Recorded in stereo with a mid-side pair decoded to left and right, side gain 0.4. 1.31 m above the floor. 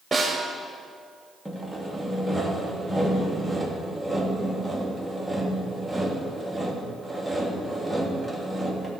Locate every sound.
0.1 s a snare drum: 25° right, 2.5 m
1.4 s sawing: straight ahead, 2.5 m